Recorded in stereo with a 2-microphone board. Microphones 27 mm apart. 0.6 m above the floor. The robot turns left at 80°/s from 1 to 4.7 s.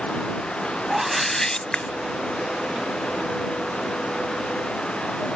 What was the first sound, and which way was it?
A whoosh, 165° right.